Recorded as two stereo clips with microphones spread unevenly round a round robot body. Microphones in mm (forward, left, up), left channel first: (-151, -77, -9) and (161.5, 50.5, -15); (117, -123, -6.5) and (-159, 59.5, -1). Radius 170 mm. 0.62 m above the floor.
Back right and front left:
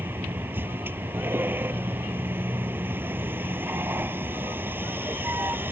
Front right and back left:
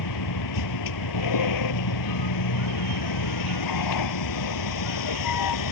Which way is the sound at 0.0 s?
60° right.